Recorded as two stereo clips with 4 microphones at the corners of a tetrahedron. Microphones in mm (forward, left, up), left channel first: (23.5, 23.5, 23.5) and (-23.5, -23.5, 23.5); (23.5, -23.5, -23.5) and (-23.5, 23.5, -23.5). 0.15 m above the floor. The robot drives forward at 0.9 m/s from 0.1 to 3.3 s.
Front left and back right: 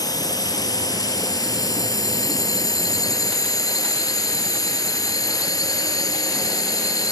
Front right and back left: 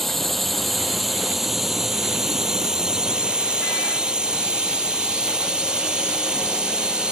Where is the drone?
40° left; by 7.1 s 60° left.